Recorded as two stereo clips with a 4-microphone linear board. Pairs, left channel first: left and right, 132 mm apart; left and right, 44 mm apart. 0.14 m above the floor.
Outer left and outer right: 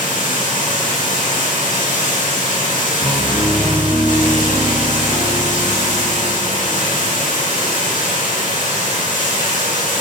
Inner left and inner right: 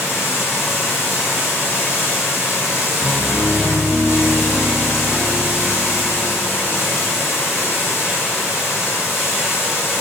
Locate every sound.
0.0 s running water: 75° left (ahead or behind), 3.5 m
3.0 s a piano: 20° right (ahead or behind), 1.6 m